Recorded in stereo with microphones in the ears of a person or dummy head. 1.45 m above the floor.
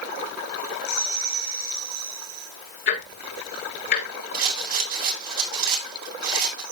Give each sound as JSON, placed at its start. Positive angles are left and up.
{"t": 2.9, "sound": "ticking", "side_deg": 50, "distance_m": 3.5}
{"t": 4.3, "sound": "a rattle", "side_deg": -50, "distance_m": 6.5}